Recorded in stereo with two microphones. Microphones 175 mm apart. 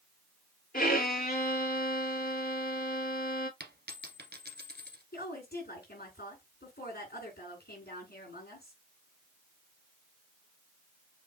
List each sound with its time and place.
0.7 s a violin: 60° left (ahead or behind), 1.0 m
3.6 s a dropped coin: 75° right (ahead or behind), 1.3 m
5.1 s a woman speaking: 70° left (ahead or behind), 4.5 m